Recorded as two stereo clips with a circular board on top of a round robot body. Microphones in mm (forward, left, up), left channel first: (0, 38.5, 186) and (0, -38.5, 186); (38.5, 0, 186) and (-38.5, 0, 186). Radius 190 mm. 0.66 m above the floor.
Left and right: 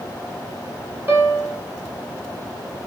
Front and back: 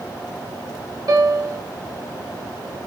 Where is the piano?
150° right, 3 m.